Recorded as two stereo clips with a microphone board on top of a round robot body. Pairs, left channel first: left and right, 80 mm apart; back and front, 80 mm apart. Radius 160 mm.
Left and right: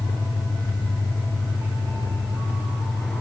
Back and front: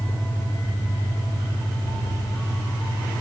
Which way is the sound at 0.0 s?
120° left.